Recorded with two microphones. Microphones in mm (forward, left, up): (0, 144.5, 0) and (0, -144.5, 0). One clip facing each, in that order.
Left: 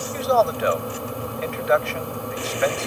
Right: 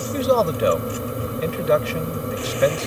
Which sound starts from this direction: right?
A man speaking, at 0.1 s.